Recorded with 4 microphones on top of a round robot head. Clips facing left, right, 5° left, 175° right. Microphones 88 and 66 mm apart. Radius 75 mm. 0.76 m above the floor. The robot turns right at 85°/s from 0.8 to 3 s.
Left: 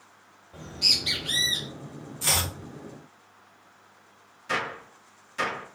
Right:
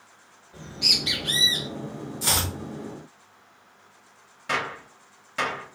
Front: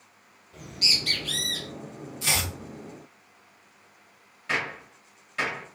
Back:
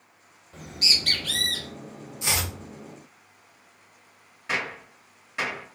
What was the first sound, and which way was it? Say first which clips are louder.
A bird: right 3 dB, back 1 dB; 145° left.